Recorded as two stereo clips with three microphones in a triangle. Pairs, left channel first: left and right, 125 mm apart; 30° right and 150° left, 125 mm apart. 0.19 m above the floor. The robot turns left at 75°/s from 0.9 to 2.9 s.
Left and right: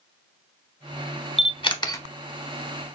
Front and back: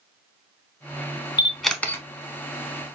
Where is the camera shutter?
80° left, 0.6 m; by 2.0 s 30° left, 0.6 m.